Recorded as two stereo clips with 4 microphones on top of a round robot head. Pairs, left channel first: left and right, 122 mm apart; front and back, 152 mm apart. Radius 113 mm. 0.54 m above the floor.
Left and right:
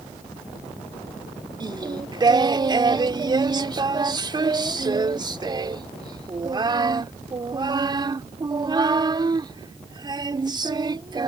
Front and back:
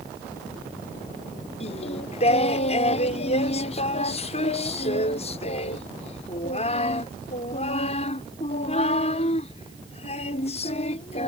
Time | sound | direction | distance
1.6 | singing | 40° right | ?